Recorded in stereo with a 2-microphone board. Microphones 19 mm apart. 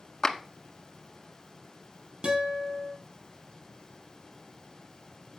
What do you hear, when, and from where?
0.2 s a clap: 30° left (ahead or behind), 1.2 m
2.2 s a guitar: 55° right (ahead or behind), 4 m